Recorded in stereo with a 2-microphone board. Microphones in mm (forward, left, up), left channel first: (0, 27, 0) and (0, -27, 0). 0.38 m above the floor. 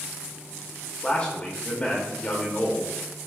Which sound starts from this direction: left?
A man speaking, at 1.0 s.